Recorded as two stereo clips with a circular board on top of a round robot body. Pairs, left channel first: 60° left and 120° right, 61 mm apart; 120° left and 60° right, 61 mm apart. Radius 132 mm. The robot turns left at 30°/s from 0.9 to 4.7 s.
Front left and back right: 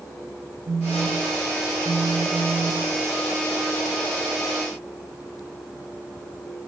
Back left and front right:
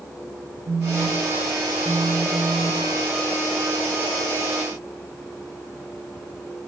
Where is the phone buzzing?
90° right, 0.5 m; by 2.9 s 150° right, 0.5 m.